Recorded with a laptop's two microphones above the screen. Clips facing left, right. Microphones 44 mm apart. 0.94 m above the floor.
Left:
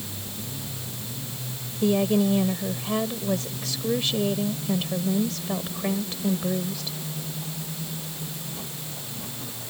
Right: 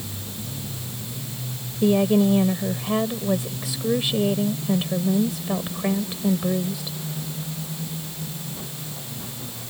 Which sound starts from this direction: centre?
A woman speaking, at 1.8 s.